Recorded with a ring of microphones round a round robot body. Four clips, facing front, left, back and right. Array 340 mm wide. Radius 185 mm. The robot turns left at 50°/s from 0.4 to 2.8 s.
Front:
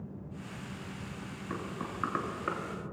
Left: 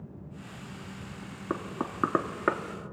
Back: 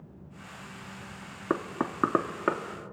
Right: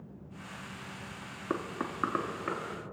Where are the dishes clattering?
No dishes clattering in this recording.